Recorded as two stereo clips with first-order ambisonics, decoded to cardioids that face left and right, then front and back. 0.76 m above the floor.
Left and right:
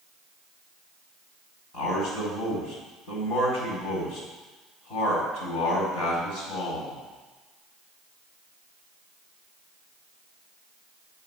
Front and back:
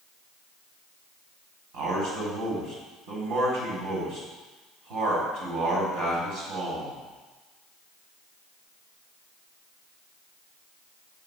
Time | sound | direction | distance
1.7 | a man speaking | 145° left | 4.5 m